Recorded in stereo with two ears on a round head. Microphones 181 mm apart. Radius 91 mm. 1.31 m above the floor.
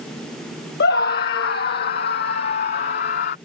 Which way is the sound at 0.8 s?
55° left (ahead or behind).